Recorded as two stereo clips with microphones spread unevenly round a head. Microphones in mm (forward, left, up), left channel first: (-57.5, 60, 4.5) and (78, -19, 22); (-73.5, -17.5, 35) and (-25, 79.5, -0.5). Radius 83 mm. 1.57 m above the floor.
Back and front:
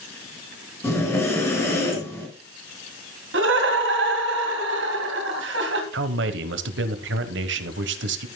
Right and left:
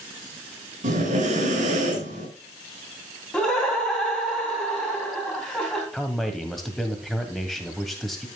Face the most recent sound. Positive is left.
turn(degrees=-25)